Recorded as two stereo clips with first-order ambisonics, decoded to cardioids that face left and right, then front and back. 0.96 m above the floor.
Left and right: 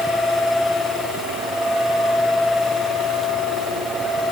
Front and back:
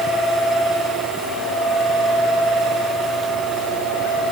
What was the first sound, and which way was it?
Only background noise.